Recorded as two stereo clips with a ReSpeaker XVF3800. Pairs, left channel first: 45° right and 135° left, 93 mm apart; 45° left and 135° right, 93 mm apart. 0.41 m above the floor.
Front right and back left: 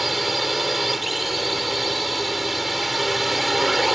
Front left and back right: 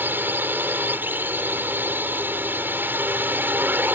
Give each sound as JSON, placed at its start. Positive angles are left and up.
{"t": 0.0, "sound": "a drone", "azimuth_deg": -140}